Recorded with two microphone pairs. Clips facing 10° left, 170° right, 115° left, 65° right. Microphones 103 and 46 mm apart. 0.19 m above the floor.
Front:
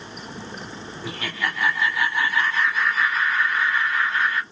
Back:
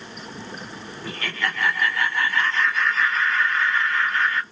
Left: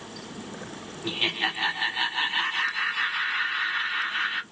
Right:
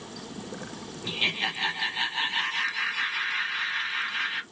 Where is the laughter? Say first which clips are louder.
Even, left 1 dB; 70° left, 1.0 m.